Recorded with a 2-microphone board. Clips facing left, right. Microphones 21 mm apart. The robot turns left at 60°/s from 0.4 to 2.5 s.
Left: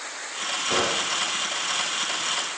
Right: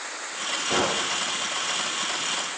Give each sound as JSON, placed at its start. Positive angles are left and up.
{"t": 0.7, "sound": "a gunshot", "azimuth_deg": 170, "distance_m": 4.5}